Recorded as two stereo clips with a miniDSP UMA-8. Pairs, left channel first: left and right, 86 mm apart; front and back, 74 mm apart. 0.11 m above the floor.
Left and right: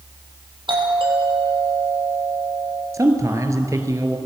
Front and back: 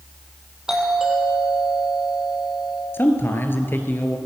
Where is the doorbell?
100° right, 4.5 m.